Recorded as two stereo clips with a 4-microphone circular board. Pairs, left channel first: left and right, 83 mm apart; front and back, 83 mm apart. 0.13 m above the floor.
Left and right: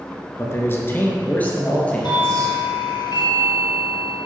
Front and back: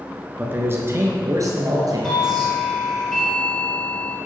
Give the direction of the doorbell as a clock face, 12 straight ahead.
9 o'clock.